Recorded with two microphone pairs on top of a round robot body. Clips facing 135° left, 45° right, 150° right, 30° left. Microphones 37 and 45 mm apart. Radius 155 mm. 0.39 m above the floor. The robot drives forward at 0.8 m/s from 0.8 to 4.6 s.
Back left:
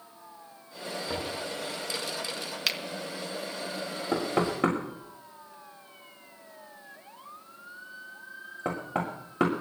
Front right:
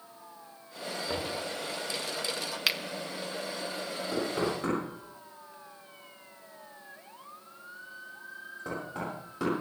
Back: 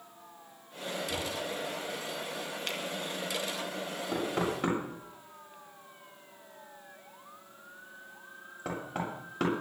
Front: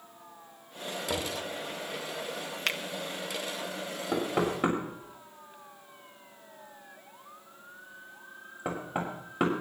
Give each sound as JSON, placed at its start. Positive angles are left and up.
{"t": 1.1, "sound": "knocking", "azimuth_deg": 50, "distance_m": 5.5}
{"t": 2.7, "sound": "a finger snap", "azimuth_deg": 40, "distance_m": 1.5}
{"t": 4.1, "sound": "knocking", "azimuth_deg": 105, "distance_m": 8.0}